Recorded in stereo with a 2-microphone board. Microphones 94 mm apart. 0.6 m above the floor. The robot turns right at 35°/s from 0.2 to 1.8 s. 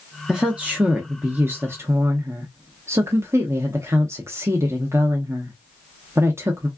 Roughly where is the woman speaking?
Behind.